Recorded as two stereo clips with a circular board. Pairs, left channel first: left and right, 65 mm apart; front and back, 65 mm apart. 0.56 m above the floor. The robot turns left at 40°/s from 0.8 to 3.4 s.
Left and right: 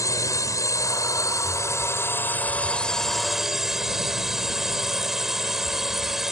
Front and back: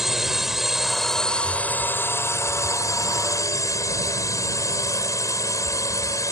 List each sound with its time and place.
0.0 s a drone: 95° left; by 6.3 s 10° right